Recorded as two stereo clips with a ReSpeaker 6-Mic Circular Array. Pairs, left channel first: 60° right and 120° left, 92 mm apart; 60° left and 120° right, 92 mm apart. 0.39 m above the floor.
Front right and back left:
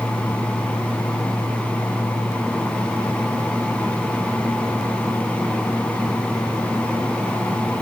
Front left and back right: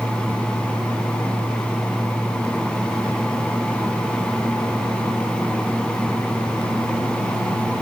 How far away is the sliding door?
No sliding door in this recording.